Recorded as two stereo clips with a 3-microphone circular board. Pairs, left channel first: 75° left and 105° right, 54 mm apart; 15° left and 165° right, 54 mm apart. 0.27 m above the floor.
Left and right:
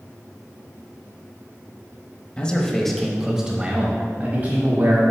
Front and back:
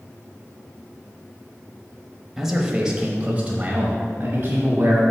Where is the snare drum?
I don't hear a snare drum.